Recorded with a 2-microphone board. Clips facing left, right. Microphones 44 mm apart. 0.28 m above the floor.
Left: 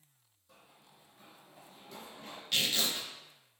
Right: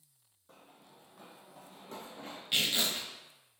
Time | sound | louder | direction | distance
0.5 | running footsteps | right 3 dB | 45° right (ahead or behind) | 0.6 m
2.5 | tearing paper | right 1 dB | 20° right (ahead or behind) | 0.6 m